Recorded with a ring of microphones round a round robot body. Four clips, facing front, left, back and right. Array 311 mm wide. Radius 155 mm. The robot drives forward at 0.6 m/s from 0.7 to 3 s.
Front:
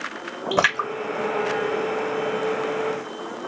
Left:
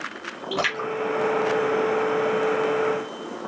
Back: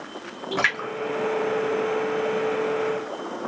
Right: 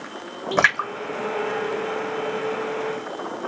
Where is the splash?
40° right, 1.4 m; by 2.4 s 90° right, 1.0 m.